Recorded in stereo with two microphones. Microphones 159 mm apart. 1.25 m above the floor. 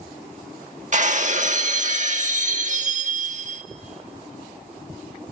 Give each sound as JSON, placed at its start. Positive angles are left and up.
{"t": 0.9, "sound": "breaking glass", "side_deg": -50, "distance_m": 1.3}